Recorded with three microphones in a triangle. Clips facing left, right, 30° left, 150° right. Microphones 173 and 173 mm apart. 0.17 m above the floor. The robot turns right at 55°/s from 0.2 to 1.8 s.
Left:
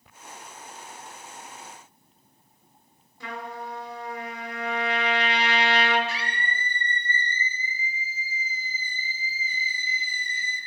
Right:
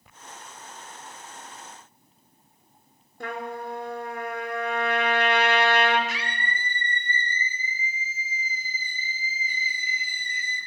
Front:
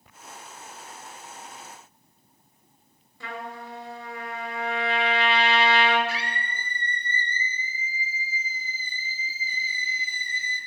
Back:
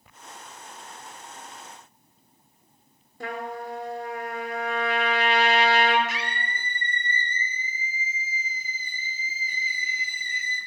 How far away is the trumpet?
About 2.5 m.